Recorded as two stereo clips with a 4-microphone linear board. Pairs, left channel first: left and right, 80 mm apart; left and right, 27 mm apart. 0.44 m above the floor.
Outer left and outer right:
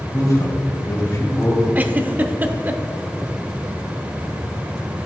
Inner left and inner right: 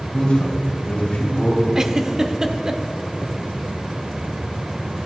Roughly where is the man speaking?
Left.